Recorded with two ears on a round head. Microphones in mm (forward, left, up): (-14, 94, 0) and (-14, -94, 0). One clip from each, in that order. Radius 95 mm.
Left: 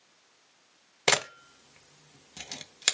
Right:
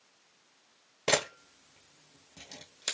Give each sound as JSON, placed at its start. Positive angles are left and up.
{"t": 1.1, "sound": "a camera shutter", "side_deg": 50, "distance_m": 0.8}